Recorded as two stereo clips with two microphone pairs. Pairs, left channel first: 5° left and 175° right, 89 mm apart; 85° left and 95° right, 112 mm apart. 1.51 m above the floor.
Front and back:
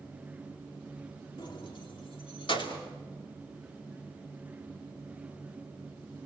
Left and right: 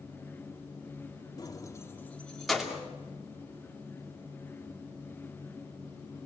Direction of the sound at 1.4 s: 35° left.